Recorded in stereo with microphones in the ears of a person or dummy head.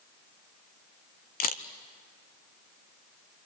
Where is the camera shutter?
40° left (ahead or behind), 0.9 m.